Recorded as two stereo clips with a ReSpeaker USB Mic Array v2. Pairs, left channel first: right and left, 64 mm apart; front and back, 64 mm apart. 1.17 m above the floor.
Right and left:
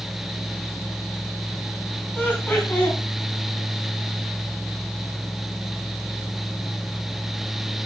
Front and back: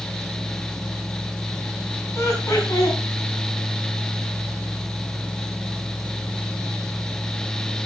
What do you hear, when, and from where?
2.1 s laughter: 35° right, 3 m